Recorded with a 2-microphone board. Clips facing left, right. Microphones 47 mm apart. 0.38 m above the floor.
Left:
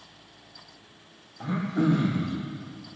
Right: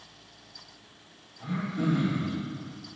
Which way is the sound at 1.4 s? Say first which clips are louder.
Left 4 dB; 60° left (ahead or behind).